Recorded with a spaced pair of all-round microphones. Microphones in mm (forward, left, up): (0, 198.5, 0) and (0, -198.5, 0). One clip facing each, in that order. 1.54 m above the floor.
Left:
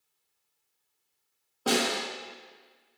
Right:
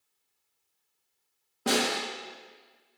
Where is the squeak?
No squeak in this recording.